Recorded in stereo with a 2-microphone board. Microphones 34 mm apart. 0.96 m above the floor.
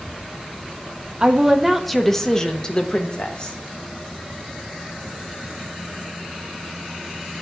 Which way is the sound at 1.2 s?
25° right (ahead or behind).